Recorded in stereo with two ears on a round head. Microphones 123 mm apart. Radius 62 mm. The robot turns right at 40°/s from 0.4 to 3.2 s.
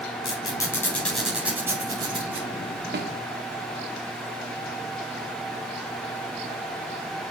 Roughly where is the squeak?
Left.